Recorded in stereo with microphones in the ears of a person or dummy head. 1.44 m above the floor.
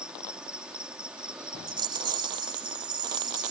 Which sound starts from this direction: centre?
An insect, at 0.0 s.